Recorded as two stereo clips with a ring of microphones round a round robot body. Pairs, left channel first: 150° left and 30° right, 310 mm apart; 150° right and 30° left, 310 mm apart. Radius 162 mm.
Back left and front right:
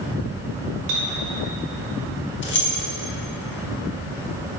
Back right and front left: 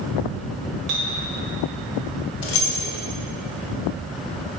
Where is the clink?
5° right, 1.8 m.